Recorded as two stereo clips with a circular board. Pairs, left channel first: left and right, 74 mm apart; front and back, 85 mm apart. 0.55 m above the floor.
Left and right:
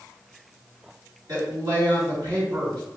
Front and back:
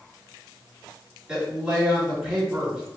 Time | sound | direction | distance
1.3 | a woman speaking | 95° right | 2.0 m